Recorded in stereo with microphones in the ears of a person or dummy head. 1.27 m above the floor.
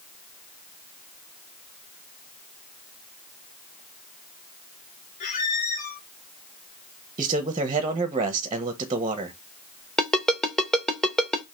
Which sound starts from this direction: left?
A squeak, at 5.2 s.